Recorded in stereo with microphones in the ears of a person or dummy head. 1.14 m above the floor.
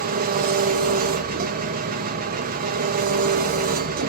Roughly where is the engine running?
Right.